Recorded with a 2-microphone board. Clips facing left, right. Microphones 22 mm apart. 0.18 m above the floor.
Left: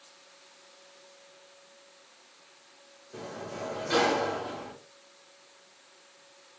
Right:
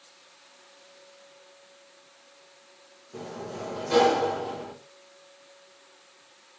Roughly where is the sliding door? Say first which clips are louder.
Right 2 dB; left.